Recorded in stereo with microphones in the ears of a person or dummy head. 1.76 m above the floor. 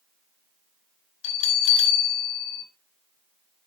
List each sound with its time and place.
1.2 s a bell: 75° left (ahead or behind), 5 m